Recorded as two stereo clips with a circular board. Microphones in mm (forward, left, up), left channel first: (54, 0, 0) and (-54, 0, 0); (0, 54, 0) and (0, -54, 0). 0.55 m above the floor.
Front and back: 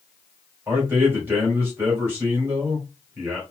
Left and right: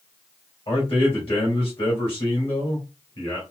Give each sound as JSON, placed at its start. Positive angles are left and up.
{"t": 0.7, "sound": "a man speaking", "azimuth_deg": 110, "distance_m": 2.0}